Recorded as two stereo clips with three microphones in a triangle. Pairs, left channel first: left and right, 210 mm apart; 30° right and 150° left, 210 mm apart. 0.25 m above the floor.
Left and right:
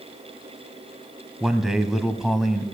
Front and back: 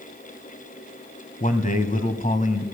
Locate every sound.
1.4 s a man speaking: 5° right, 1.7 m